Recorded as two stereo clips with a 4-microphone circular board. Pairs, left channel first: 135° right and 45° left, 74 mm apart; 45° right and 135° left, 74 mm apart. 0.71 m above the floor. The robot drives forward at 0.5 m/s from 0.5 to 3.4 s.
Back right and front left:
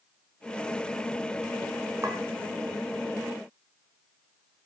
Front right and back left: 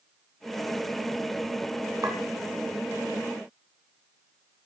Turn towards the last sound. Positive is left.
turn(degrees=100)